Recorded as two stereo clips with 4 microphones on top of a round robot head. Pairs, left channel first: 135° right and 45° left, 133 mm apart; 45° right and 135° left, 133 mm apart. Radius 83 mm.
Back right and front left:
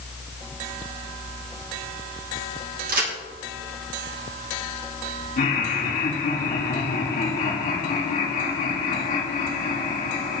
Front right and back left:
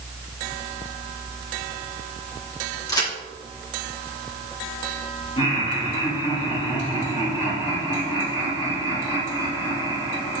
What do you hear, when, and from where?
2.9 s a crack: 20° left, 3 m
5.4 s laughter: 100° right, 4 m